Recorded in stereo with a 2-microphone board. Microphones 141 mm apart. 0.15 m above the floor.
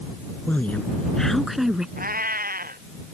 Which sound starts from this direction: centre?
A woman speaking, at 0.5 s.